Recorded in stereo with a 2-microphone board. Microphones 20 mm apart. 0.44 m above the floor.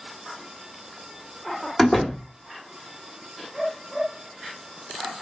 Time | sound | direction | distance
1.8 | a door slam | 15° left (ahead or behind) | 0.8 m